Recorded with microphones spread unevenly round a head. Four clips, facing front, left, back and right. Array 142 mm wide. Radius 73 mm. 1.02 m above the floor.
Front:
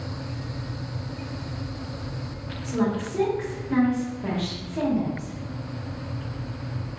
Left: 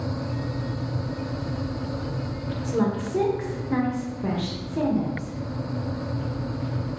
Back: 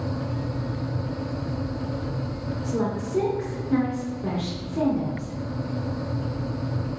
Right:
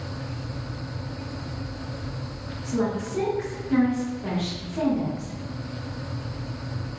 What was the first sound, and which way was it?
A woman speaking, 135° left.